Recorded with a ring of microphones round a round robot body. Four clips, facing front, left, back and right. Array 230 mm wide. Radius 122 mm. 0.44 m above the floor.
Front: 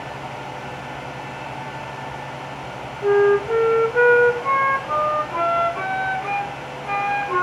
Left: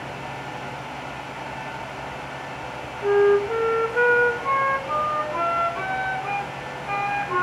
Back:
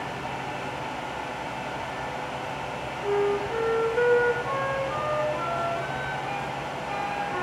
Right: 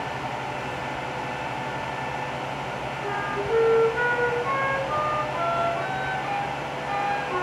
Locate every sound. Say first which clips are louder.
3.0 s a flute: left 13 dB, front 9 dB; 20° left, 1.0 m